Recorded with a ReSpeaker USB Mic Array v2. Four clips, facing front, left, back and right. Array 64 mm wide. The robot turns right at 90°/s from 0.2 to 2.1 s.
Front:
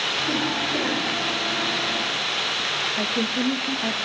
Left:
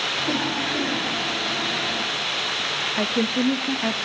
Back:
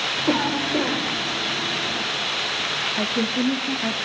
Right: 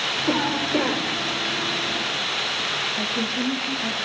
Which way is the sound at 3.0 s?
95° left.